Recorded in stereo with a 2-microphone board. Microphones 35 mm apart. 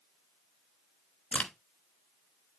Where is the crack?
40° left (ahead or behind), 0.9 m.